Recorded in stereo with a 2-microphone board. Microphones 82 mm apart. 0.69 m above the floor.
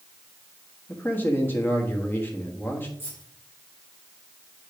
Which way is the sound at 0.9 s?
25° left (ahead or behind).